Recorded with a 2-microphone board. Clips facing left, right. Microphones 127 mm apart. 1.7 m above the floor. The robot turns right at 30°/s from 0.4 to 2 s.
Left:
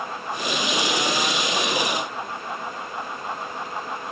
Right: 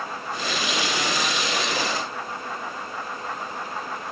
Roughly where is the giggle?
I don't hear a giggle.